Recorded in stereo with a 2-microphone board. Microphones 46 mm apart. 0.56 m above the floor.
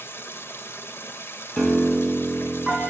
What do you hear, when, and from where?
0.0 s running water: 60° left (ahead or behind), 1.0 m
1.6 s a piano: 5° left (ahead or behind), 3 m